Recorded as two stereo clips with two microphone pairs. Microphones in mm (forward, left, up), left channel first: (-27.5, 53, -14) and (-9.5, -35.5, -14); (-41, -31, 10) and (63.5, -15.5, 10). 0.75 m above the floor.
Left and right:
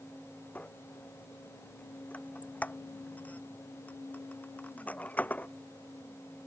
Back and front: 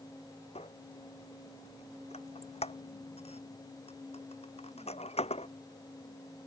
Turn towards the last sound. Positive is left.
turn(degrees=175)